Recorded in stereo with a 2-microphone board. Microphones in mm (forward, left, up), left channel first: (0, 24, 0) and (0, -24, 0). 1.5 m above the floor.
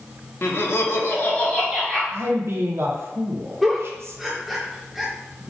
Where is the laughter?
50° left (ahead or behind), 0.7 m; by 2.0 s 15° left (ahead or behind), 0.9 m.